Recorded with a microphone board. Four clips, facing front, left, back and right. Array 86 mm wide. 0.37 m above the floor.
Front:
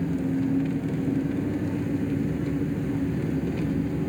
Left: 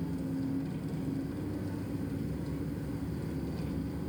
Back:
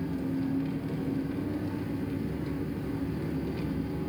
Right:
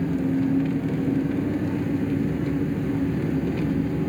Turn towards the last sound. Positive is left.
turn(degrees=-65)